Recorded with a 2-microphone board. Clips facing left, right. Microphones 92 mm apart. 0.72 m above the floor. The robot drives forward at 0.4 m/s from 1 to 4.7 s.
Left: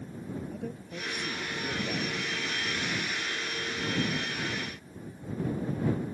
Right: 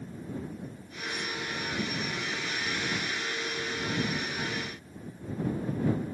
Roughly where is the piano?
No piano in this recording.